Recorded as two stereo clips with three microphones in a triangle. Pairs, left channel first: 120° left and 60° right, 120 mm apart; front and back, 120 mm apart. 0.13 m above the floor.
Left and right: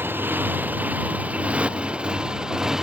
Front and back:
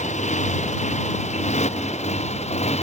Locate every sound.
0.0 s a motorcycle: 15° left; by 2.8 s 25° left